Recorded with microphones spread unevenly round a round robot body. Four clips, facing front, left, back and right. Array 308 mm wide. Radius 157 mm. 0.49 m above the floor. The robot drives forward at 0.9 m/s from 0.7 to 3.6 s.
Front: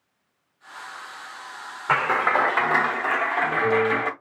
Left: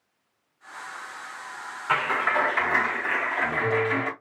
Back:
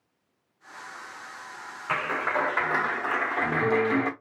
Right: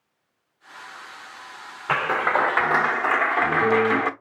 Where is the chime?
I don't hear a chime.